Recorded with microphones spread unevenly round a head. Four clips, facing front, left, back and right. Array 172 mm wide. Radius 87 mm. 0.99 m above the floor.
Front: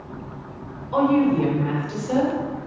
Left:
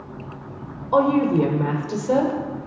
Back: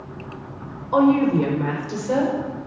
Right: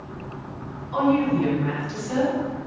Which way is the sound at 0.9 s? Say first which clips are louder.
Left 3 dB, back 2 dB; 110° left.